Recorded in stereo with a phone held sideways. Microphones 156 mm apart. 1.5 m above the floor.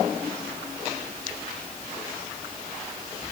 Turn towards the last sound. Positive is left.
No sound to turn to.